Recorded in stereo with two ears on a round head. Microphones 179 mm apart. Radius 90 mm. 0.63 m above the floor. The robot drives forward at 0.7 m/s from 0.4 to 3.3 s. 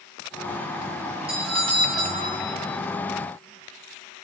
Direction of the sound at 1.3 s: 30° right (ahead or behind).